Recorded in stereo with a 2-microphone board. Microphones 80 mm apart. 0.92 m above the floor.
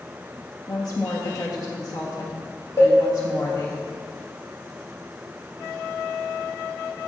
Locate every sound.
0.7 s a woman speaking: 50° left (ahead or behind), 1.4 m
2.8 s a cowbell: 35° left (ahead or behind), 1.4 m